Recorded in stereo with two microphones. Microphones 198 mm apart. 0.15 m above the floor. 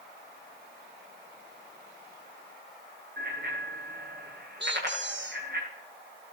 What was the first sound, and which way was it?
A bicycle bell, 60° right (ahead or behind).